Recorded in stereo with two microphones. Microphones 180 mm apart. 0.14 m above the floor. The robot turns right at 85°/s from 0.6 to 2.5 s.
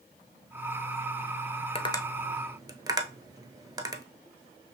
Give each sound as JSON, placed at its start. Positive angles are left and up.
{"t": 1.8, "sound": "tapping", "side_deg": 35, "distance_m": 0.7}